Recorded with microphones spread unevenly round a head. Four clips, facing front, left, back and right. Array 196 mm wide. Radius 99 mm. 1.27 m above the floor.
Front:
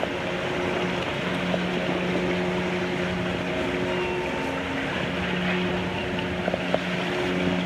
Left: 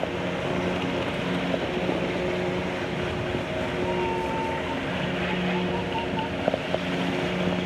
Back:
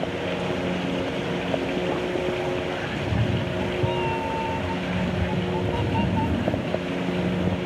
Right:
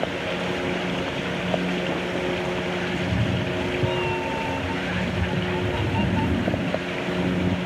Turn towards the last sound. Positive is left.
turn(degrees=-120)